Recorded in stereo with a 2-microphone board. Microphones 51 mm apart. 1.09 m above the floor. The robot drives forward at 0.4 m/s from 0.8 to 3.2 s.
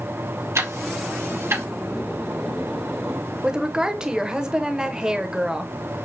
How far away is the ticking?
About 0.9 m.